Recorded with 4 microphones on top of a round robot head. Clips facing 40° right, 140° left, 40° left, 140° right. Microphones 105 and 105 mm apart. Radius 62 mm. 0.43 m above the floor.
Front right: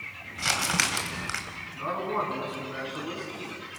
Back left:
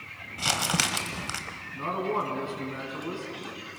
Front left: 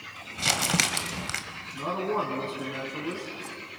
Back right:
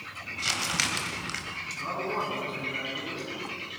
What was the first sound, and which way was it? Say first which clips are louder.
Crumpling: even, front left 5 dB; 70° left.